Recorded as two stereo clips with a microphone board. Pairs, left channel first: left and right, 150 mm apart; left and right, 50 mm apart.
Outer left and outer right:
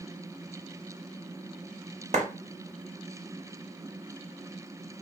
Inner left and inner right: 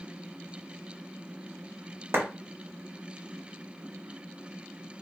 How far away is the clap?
About 0.7 m.